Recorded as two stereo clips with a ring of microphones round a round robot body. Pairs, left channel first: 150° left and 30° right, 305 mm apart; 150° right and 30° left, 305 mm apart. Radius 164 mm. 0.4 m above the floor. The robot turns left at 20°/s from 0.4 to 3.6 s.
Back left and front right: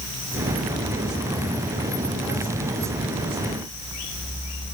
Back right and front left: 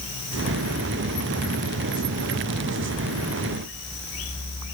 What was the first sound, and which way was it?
Only background noise.